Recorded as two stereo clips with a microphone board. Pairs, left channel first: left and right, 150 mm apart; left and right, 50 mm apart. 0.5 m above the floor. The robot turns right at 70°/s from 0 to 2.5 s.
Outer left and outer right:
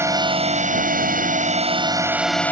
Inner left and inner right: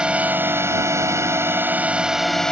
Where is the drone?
160° right; by 2.5 s 15° left.